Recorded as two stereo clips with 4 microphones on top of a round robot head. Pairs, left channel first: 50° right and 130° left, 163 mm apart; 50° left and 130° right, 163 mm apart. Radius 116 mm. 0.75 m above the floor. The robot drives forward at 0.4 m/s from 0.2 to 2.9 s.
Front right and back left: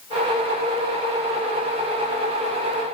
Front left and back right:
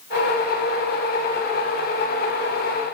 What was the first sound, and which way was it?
Only background noise.